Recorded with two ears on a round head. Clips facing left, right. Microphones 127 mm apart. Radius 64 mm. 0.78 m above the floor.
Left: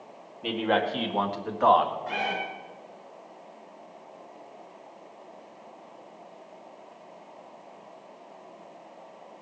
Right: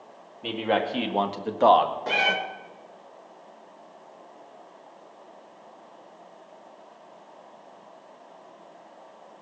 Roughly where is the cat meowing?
Right.